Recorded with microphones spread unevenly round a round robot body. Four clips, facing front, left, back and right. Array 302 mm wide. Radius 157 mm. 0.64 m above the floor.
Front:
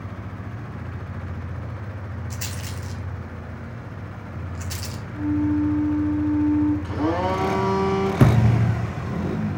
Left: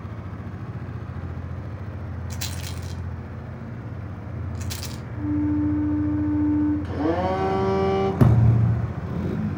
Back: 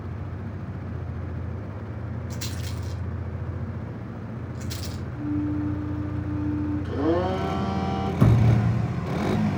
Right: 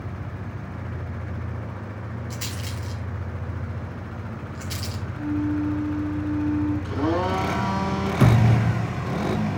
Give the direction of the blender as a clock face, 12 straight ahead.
10 o'clock.